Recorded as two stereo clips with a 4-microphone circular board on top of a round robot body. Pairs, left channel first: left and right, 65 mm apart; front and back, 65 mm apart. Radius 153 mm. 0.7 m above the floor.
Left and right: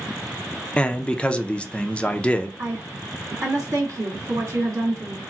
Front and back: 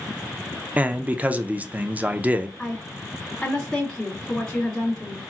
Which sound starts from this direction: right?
A woman speaking, at 2.6 s.